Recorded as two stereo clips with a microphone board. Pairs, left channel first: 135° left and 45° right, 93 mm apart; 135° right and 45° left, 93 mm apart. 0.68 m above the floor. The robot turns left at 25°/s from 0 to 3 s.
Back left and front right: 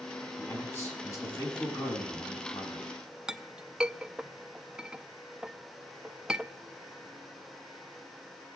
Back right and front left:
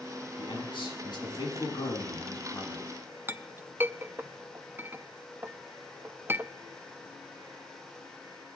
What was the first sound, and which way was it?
A man speaking, 150° right.